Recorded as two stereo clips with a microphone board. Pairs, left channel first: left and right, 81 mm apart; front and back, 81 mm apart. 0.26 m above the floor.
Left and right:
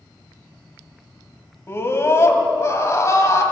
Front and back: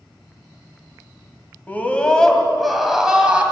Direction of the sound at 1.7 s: 55° left.